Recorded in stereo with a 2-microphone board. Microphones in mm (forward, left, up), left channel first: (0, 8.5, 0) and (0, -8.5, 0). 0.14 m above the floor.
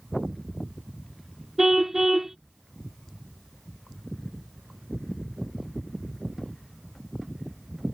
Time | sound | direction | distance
1.6 | a car horn | 25° right (ahead or behind) | ?